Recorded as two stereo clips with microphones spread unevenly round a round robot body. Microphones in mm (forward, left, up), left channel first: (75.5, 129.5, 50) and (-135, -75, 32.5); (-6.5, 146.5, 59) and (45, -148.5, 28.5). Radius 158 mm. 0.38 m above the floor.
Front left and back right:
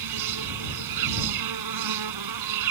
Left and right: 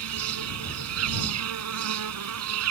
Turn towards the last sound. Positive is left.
turn(degrees=-120)